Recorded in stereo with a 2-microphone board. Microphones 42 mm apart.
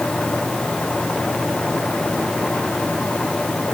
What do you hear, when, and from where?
Only background noise.